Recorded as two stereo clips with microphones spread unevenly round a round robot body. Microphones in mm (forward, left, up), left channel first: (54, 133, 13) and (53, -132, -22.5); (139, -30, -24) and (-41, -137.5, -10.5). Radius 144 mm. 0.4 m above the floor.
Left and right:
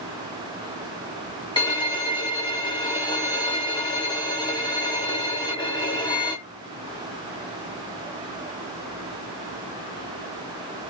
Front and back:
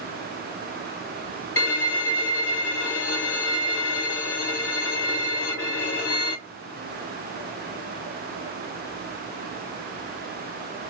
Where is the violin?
15° left, 1.5 m.